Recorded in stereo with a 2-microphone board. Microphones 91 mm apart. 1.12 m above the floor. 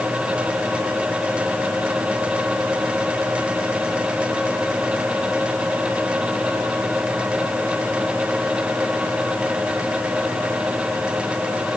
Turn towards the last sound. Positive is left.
No sound to turn to.